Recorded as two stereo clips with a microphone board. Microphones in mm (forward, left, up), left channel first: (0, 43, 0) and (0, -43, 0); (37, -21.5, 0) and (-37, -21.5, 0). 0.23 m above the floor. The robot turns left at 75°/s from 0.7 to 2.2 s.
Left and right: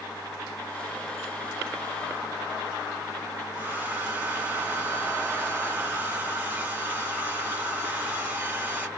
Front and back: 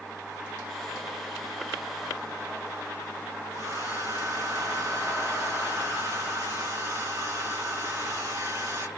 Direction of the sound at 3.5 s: 155° right.